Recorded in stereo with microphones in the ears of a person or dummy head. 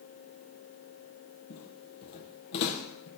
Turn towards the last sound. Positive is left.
turn(degrees=65)  # may be behind; listen again after turning